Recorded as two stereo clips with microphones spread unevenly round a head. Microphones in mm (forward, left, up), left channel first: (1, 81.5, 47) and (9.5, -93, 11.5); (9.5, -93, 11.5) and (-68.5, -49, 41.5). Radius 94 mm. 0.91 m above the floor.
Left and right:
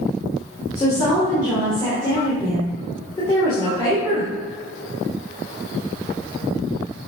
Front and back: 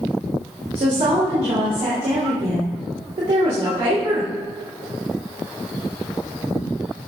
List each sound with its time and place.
0.8 s a woman speaking: 160° left, 3.5 m